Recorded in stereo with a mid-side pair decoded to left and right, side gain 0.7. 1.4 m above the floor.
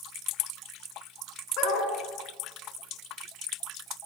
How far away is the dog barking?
About 5.5 m.